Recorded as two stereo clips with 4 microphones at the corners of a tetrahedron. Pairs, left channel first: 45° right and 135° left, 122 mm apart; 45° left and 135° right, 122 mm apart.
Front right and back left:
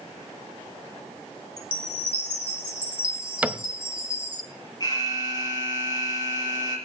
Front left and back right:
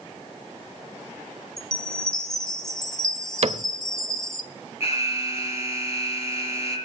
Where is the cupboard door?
150° right, 0.6 m.